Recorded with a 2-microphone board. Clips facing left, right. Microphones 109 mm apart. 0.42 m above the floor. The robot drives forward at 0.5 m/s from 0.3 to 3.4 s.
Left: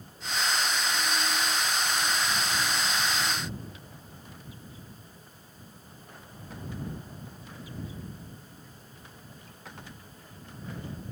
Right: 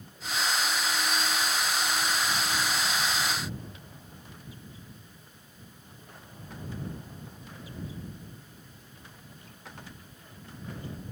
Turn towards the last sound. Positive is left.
No sound to turn to.